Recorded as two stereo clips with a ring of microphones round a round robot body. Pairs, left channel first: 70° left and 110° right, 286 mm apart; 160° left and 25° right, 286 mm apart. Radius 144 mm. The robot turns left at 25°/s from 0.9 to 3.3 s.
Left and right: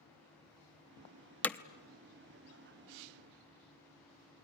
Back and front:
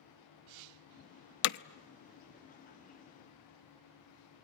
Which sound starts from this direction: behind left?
Hammering, at 1.4 s.